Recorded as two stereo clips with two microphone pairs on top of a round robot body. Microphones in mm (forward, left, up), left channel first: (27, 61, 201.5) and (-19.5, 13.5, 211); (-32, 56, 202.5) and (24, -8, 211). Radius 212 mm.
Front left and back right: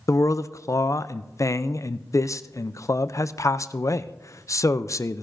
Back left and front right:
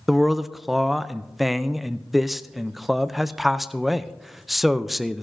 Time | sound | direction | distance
0.1 | a man speaking | 45° left | 0.6 m